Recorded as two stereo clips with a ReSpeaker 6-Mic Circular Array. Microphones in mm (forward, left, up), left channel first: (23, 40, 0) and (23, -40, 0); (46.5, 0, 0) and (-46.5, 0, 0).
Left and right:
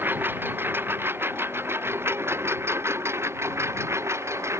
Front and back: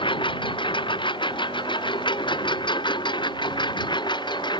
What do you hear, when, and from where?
0.0 s a lawn mower: 25° right; by 4.6 s 35° right